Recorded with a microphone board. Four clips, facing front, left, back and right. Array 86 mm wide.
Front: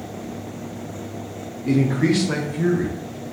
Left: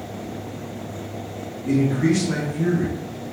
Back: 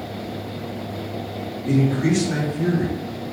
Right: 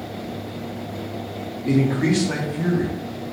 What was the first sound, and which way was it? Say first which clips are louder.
A man speaking: even, front 1 dB; 50° right.